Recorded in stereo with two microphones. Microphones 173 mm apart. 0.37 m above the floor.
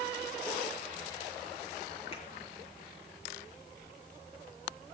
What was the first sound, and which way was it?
A finger snap, 35° left (ahead or behind).